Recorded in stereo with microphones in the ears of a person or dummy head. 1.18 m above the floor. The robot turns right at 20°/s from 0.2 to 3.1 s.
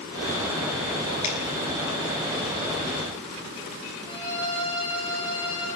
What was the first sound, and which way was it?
A finger snap, 35° left (ahead or behind).